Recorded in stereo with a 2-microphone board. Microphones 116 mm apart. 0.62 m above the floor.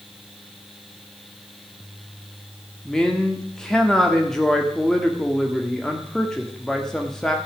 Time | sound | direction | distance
2.9 | a man speaking | 5° left (ahead or behind) | 1.2 m